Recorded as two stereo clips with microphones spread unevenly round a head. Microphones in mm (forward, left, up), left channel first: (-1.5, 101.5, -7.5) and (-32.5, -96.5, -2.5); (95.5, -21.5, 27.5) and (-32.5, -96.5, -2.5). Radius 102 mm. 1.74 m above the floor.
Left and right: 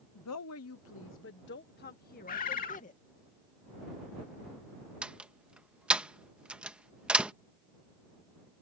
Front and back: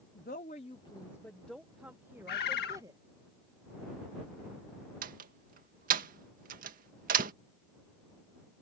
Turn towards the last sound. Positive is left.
turn(degrees=180)